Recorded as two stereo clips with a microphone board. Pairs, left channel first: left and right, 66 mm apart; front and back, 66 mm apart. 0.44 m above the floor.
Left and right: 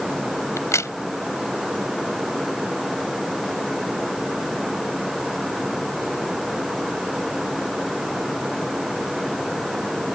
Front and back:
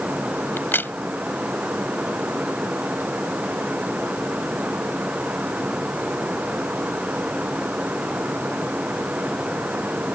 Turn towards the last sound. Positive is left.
turn(degrees=55)